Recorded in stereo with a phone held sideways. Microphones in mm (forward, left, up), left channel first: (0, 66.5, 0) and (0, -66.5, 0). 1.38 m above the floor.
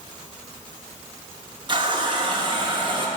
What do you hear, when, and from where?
1.7 s a running tap: 35° right (ahead or behind), 1.0 m